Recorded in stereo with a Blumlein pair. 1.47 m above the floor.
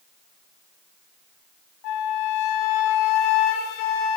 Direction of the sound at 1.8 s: 40° left.